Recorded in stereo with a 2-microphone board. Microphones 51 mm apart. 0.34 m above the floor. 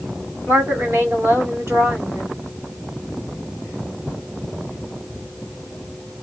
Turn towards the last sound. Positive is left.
turn(degrees=-55)  # may be behind; listen again after turning